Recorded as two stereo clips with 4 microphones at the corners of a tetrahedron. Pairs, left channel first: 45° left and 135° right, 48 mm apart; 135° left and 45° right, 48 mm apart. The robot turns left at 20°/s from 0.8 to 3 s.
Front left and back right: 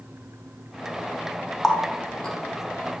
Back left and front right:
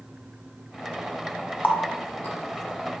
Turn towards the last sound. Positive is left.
turn(degrees=95)